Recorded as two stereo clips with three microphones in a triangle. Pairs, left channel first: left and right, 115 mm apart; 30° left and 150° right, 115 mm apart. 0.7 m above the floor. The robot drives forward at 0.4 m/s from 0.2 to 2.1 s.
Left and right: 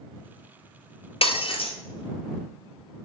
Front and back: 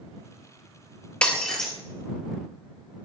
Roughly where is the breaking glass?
Left.